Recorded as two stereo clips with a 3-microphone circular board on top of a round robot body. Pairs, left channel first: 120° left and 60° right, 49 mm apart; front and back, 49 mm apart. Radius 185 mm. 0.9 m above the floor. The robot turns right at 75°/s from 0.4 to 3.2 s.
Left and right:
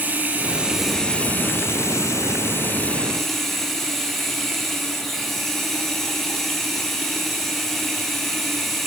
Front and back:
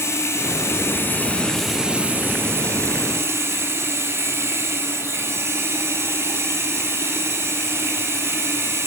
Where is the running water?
5° right, 4 m; by 8.9 s 155° right, 4 m.